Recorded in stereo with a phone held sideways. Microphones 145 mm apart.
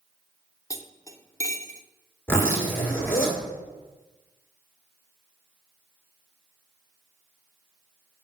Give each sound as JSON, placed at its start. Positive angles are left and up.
{"t": 0.7, "sound": "cutlery clinking", "side_deg": 20, "distance_m": 0.5}
{"t": 2.3, "sound": "a zipper", "side_deg": 15, "distance_m": 1.7}